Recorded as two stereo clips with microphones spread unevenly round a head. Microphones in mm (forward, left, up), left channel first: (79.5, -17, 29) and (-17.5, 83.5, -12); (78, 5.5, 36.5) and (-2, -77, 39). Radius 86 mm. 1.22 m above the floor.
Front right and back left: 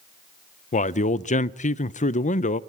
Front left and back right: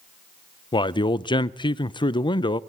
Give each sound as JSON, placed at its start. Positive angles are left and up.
{"t": 0.7, "sound": "a man speaking", "azimuth_deg": -5, "distance_m": 0.6}